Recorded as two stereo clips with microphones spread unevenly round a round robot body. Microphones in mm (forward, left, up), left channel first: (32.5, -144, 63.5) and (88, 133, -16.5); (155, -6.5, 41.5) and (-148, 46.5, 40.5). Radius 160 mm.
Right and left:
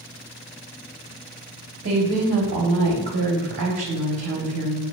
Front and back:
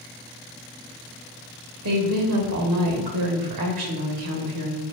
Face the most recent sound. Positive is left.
turn(degrees=140)